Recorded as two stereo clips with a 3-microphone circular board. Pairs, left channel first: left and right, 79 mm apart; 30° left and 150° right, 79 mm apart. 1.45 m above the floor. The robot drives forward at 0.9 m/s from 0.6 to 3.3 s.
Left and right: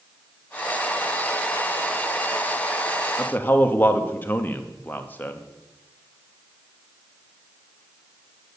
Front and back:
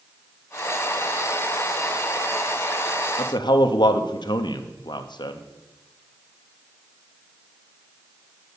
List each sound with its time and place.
3.2 s a man speaking: 20° left, 1.0 m; by 5.4 s 25° left, 0.9 m